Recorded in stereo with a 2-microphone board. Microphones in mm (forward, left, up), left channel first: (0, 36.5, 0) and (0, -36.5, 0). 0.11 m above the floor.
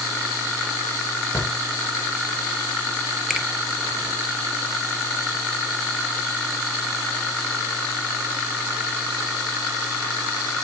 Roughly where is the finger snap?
Centre.